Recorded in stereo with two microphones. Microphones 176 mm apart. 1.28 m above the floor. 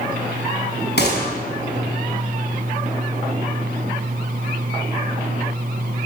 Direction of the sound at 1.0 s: 85° left.